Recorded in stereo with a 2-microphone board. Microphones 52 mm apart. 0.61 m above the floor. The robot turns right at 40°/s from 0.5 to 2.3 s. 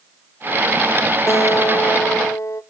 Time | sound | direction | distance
1.3 | a guitar | 60° left | 0.7 m